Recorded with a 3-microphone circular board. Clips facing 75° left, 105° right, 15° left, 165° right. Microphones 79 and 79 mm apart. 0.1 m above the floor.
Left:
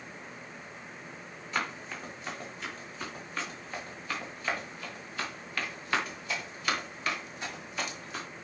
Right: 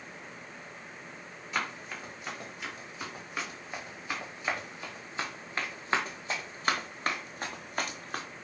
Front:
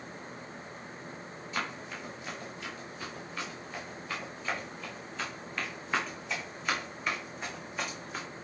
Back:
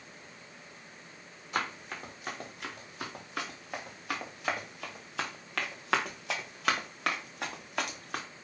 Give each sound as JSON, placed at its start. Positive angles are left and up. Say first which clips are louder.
{"t": 1.5, "sound": "running footsteps", "louder": "left 1 dB, back 2 dB", "azimuth_deg": 165, "distance_m": 4.5}